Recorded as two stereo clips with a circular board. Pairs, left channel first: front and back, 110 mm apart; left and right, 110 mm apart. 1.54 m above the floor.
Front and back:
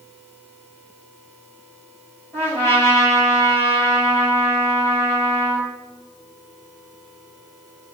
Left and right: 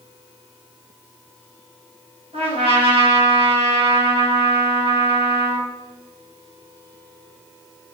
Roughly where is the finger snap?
I don't hear a finger snap.